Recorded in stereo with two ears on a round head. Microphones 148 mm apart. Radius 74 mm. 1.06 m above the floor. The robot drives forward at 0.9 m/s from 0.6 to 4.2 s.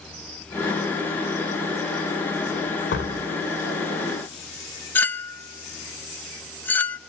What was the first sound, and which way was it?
A door slam, 80° left.